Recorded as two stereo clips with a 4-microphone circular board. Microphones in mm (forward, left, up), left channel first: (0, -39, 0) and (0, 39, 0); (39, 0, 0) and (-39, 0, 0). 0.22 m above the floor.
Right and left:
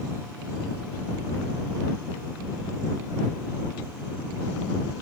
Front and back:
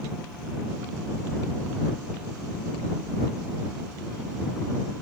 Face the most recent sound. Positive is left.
No sound to turn to.